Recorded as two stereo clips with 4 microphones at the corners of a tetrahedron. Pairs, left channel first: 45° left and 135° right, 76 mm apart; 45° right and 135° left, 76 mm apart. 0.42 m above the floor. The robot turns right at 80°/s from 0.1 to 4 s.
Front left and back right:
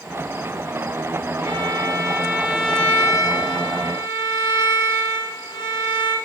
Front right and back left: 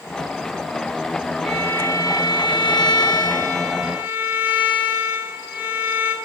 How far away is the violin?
About 3 m.